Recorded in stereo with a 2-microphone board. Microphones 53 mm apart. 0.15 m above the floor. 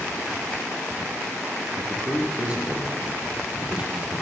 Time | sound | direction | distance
1.8 | a man speaking | 25° right (ahead or behind) | 4.5 m